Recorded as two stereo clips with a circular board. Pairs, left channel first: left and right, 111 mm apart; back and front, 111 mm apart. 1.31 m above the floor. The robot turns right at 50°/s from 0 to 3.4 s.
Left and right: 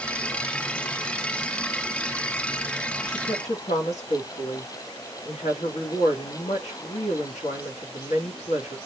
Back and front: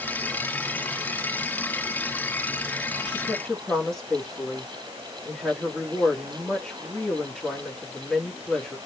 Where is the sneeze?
No sneeze in this recording.